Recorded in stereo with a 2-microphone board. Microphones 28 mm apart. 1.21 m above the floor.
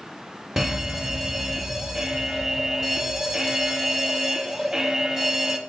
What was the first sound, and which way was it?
A fire alarm, 15° right (ahead or behind).